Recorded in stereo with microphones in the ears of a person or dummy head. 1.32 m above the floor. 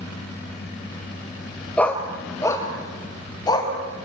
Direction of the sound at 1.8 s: 5° left (ahead or behind).